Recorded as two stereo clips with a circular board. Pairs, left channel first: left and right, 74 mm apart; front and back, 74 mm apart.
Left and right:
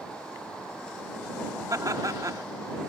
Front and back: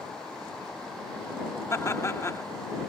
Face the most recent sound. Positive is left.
turn(degrees=-50)